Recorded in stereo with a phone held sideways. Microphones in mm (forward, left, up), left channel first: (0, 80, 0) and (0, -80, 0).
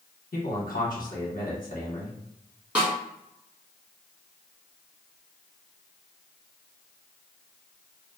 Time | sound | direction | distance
0.3 | a man speaking | 60° left (ahead or behind) | 1.5 m
2.8 | a snare drum | 10° right (ahead or behind) | 1.4 m